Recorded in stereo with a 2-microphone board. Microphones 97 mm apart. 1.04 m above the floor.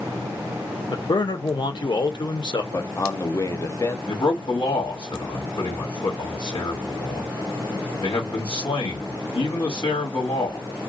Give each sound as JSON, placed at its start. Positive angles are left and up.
{"t": 0.9, "sound": "a man speaking", "side_deg": 50, "distance_m": 0.7}
{"t": 2.7, "sound": "a man speaking", "side_deg": 30, "distance_m": 0.6}
{"t": 4.1, "sound": "a man speaking", "side_deg": 50, "distance_m": 1.4}